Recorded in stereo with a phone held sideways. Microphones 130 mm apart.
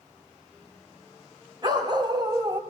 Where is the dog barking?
35° right (ahead or behind), 3 m.